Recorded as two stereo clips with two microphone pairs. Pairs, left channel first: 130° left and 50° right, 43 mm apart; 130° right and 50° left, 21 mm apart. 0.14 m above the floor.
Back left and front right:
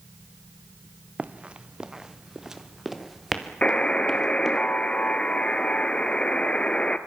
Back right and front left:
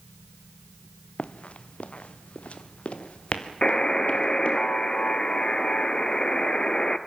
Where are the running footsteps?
105° right, 1.0 m; by 4.6 s 145° right, 3.5 m.